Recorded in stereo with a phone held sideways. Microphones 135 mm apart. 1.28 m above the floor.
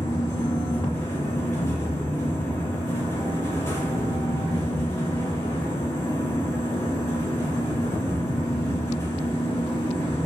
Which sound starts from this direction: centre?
A fan, at 0.0 s.